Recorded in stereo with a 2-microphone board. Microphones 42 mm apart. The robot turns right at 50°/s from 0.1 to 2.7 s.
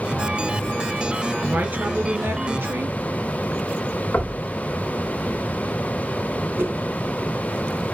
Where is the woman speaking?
130° right, 3 m; by 3.0 s 70° right, 3 m.